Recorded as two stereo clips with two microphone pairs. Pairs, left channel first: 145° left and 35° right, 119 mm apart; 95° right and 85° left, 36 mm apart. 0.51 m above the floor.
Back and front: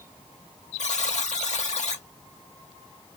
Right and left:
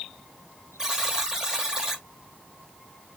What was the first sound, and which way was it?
A buzzer, 155° left.